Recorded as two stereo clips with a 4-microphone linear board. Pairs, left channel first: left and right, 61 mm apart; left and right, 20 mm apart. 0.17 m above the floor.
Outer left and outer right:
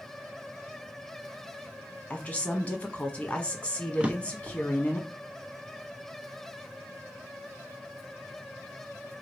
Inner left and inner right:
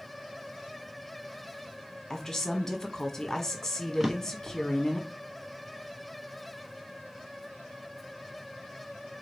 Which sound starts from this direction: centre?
A drawer, at 4.0 s.